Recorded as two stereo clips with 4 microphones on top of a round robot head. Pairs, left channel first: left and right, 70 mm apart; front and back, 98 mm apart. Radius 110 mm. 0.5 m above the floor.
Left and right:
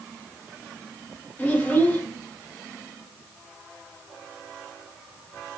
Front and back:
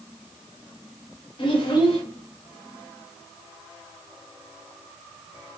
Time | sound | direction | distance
1.4 | a child speaking | 25° left | 1.5 m